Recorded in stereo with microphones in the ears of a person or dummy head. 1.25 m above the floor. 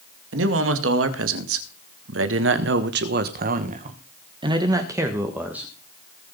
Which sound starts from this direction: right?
A man speaking, at 0.3 s.